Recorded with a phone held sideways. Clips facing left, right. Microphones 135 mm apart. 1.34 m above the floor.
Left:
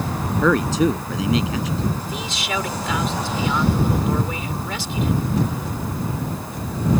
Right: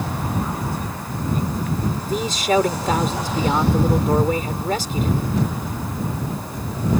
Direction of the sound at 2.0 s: 45° right (ahead or behind).